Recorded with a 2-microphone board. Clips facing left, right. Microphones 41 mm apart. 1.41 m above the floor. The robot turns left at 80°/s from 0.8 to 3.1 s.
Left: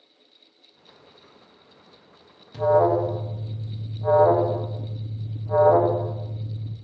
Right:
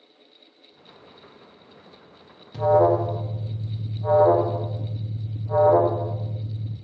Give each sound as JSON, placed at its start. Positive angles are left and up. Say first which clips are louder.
{"t": 2.5, "sound": "an alarm", "louder": "right 1 dB", "side_deg": -5, "distance_m": 0.6}